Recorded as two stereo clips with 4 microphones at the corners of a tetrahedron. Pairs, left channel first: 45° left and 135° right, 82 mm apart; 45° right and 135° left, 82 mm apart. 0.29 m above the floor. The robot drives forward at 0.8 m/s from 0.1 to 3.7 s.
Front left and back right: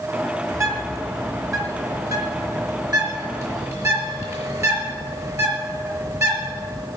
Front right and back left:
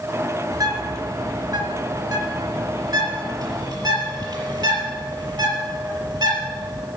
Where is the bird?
175° left, 3 m; by 6.9 s straight behind, 5.5 m.